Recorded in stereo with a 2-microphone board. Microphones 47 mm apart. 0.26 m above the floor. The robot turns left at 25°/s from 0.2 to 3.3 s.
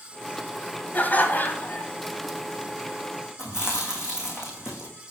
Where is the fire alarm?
No fire alarm in this recording.